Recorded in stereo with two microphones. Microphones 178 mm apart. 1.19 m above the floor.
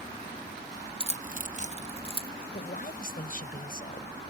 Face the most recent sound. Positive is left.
turn(degrees=55)  # may be behind; listen again after turning